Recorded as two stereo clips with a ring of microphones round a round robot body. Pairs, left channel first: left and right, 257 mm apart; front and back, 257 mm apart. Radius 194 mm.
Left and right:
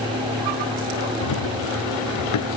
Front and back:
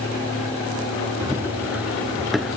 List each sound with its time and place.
1.2 s running footsteps: 100° left; by 2.6 s 90° left